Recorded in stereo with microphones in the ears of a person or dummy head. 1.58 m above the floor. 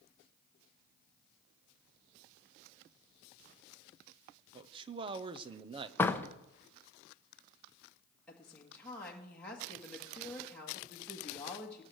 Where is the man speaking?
30° right (ahead or behind), 0.7 m.